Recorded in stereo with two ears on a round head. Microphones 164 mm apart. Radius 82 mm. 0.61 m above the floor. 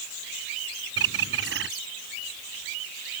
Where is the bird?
70° right (ahead or behind).